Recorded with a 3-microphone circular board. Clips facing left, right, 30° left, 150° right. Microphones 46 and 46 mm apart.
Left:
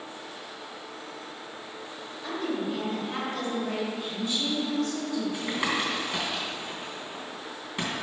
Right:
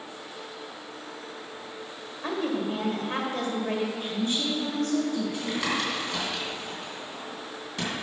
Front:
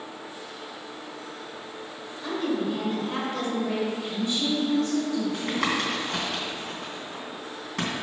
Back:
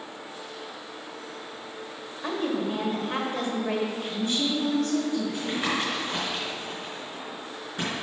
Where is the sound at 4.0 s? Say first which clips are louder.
Right 2 dB, even; 120° right, 1.6 m.